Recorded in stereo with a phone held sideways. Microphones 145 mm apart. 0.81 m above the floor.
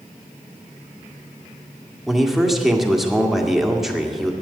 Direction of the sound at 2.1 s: 5° right (ahead or behind).